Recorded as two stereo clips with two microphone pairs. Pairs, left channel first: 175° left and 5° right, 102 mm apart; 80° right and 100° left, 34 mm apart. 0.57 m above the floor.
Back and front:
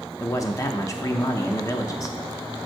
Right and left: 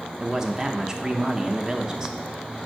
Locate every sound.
0.2 s a man speaking: 155° left, 0.8 m